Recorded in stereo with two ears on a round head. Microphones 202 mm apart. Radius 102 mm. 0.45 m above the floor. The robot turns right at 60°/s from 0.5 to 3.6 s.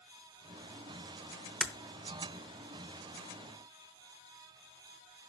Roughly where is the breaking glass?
Centre.